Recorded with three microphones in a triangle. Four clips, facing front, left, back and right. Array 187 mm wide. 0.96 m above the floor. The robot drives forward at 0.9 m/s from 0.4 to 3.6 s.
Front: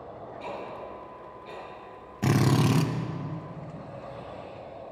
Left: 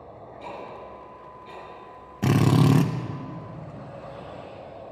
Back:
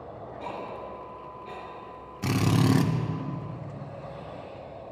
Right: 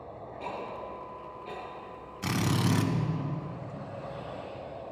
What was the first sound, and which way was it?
Ticking, 110° right.